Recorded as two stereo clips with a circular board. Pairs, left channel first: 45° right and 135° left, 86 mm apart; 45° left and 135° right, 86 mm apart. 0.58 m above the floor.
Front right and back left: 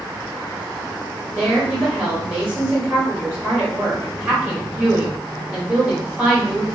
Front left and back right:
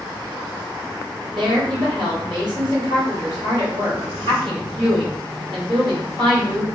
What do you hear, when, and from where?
1.3 s a woman speaking: 155° right, 1.9 m